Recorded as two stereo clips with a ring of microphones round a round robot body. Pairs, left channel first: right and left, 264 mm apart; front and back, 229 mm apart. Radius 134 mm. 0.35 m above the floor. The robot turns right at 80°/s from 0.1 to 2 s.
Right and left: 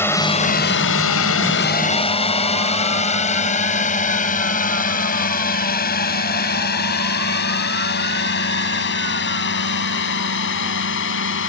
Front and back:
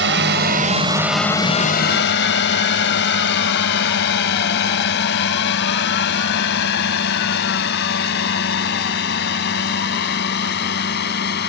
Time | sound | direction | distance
0.0 | a drone | 170° right | ?